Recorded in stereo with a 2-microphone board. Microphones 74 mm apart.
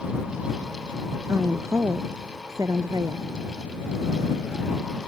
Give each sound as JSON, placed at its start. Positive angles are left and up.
{"t": 1.3, "sound": "a woman speaking", "side_deg": -35}